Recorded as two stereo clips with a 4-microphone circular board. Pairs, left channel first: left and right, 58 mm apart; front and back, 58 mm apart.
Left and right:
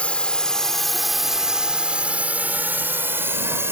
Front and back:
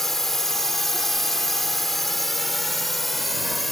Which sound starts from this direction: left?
A drone, at 0.0 s.